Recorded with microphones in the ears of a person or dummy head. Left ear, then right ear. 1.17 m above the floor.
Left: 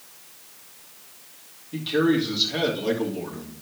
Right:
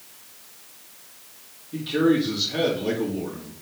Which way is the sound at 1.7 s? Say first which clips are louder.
Right 1 dB; 20° left (ahead or behind).